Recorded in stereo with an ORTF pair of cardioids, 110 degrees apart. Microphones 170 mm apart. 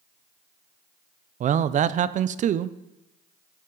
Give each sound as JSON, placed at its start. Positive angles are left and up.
{"t": 1.4, "sound": "a man speaking", "azimuth_deg": -45, "distance_m": 0.6}